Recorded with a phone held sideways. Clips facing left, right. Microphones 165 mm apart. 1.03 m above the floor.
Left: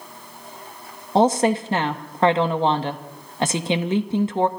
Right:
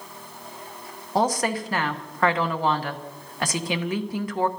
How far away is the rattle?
I don't hear a rattle.